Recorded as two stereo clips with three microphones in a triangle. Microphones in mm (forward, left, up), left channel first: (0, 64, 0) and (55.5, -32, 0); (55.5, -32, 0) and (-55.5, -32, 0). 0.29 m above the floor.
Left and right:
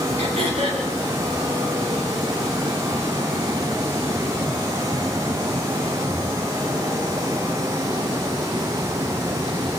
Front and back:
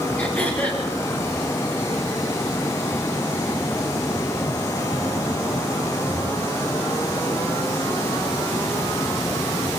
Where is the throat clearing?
75° right, 5.5 m.